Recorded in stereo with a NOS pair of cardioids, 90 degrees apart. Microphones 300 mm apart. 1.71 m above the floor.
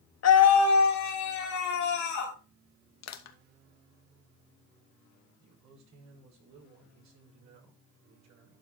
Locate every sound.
0.2 s a scream: 55° left, 1.8 m; by 2.4 s 80° left, 4 m
3.0 s crushing: 65° left, 1.3 m
5.4 s a man speaking: 65° right, 6 m